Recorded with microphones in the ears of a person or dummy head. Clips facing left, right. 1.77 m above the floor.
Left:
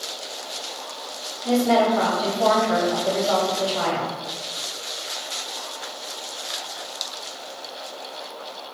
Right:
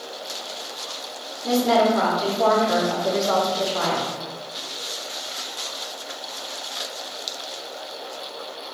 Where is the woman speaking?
60° right (ahead or behind), 1.8 m.